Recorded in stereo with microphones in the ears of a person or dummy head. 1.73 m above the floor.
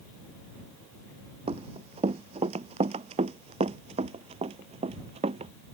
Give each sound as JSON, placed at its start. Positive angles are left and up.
{"t": 1.5, "sound": "running footsteps", "side_deg": -35}